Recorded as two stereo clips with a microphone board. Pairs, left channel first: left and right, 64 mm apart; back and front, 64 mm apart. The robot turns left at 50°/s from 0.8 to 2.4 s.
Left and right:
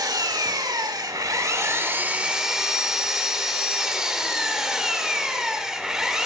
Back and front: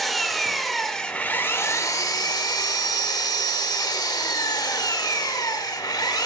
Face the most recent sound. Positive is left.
turn(degrees=-170)